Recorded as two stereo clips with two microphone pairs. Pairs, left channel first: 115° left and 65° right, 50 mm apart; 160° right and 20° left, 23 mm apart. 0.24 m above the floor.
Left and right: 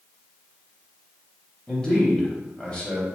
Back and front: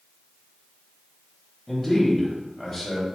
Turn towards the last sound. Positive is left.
turn(degrees=125)